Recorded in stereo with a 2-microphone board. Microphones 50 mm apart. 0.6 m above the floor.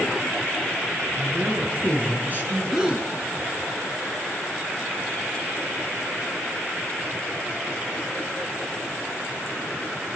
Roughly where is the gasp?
Centre.